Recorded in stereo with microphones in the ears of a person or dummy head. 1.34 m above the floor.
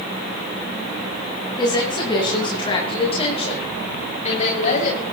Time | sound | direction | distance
1.6 | a woman speaking | 20° left (ahead or behind) | 8.5 m